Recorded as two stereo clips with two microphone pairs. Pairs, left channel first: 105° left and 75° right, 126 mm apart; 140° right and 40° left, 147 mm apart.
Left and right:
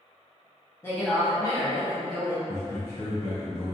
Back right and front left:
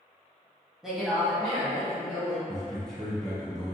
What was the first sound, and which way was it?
A woman speaking, 120° left.